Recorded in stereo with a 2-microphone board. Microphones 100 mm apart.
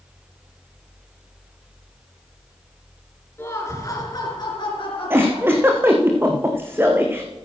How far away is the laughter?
About 2.5 m.